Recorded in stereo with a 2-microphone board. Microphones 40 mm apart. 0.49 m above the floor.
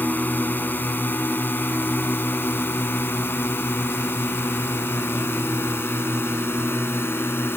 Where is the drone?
50° left (ahead or behind); by 7.6 s 80° left.